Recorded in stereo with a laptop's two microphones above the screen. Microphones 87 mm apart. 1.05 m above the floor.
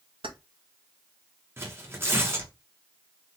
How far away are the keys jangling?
About 0.6 m.